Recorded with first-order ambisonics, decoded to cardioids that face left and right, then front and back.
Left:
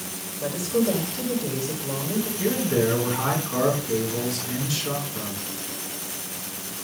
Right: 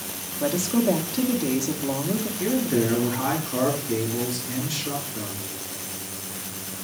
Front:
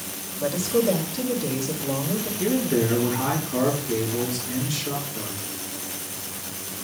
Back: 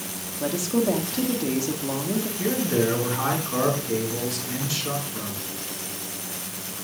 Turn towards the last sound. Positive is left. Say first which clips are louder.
# left 1 dB, front 1 dB
turn(degrees=170)